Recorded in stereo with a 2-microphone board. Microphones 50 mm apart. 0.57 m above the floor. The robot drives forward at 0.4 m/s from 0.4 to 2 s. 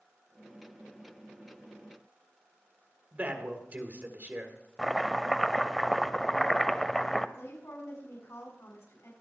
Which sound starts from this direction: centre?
Chopping, at 4.8 s.